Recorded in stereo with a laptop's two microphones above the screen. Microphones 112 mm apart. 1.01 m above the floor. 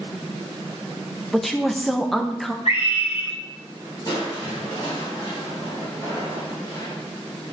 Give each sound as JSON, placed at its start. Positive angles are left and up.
{"t": 1.3, "sound": "a woman speaking", "side_deg": 0, "distance_m": 0.5}
{"t": 2.6, "sound": "a scream", "side_deg": 85, "distance_m": 4.0}
{"t": 4.0, "sound": "crushing", "side_deg": 45, "distance_m": 4.5}